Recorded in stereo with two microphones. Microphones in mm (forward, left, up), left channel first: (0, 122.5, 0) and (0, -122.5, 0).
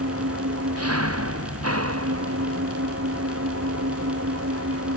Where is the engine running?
75° right (ahead or behind).